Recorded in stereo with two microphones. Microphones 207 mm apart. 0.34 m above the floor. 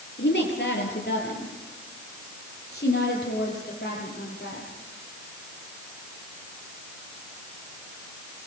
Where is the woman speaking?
55° left (ahead or behind), 7.5 m; by 4.7 s 50° left (ahead or behind), 11.5 m.